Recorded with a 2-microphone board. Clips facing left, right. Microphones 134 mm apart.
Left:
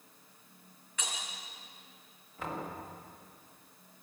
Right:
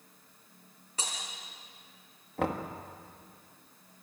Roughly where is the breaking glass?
Right.